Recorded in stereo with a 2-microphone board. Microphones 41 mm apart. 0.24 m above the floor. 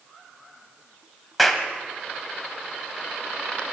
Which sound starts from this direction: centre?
A clap, at 1.4 s.